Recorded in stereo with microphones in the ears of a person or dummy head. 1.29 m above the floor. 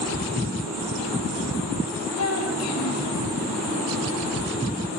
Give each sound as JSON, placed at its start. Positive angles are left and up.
{"t": 2.2, "sound": "a child speaking", "side_deg": 80, "distance_m": 4.5}